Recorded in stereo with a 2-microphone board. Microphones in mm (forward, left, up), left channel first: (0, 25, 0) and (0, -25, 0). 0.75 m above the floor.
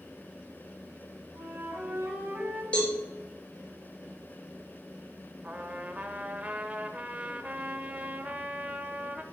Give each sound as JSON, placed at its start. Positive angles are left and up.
{"t": 1.3, "sound": "a flute", "side_deg": -60, "distance_m": 3.0}
{"t": 2.7, "sound": "a cowbell", "side_deg": 25, "distance_m": 2.5}
{"t": 5.4, "sound": "a trumpet", "side_deg": -30, "distance_m": 0.7}